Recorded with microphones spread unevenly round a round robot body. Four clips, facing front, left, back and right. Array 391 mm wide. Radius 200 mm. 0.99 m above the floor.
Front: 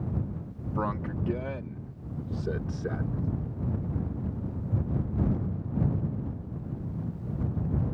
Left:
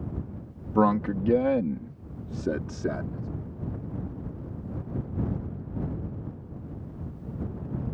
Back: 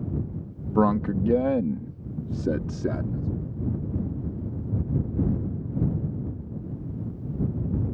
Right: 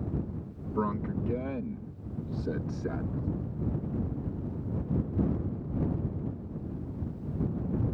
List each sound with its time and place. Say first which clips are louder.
0.8 s a man speaking: left 9 dB, back 10 dB; 115° left; by 3.3 s 165° left